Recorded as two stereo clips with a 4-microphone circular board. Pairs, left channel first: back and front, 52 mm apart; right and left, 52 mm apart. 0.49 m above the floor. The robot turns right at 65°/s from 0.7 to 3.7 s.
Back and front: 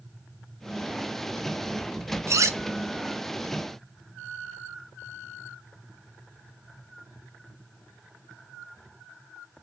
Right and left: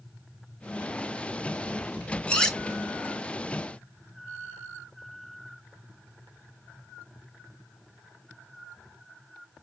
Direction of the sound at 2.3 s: 25° right.